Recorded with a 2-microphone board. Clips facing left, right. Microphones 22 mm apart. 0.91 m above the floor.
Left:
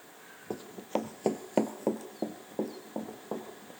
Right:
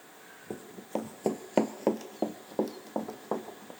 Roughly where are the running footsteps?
Left.